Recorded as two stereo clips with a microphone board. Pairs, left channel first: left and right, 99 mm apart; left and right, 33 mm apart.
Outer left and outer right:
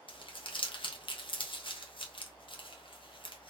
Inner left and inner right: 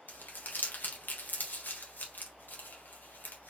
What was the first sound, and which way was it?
Crumpling, 60° left (ahead or behind).